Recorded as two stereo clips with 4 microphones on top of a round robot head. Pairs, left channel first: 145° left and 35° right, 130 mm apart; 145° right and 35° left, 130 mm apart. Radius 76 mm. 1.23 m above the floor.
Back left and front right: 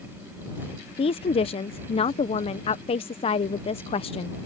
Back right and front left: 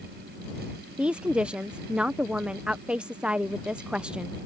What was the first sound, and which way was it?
A woman speaking, 115° left.